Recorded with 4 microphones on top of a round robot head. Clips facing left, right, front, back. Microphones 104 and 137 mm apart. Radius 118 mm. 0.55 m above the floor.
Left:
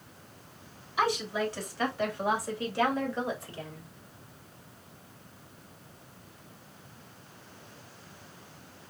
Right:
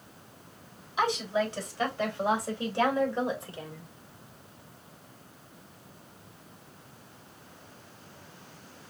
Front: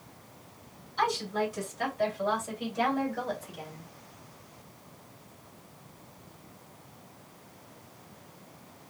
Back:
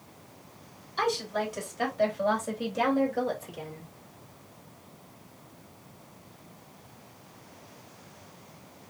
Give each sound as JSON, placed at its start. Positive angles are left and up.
{"t": 1.0, "sound": "a woman speaking", "azimuth_deg": -155, "distance_m": 4.0}